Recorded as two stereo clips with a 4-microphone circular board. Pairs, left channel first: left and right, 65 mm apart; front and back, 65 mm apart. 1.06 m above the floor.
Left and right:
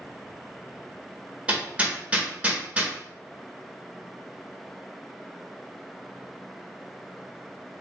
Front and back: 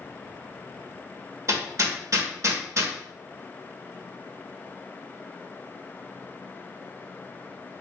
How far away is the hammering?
About 1.1 m.